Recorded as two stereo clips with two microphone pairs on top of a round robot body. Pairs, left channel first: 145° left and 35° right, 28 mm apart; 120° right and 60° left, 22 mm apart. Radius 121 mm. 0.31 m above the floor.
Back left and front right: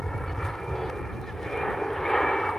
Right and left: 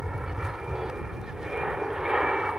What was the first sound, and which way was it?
An aircraft, 80° left.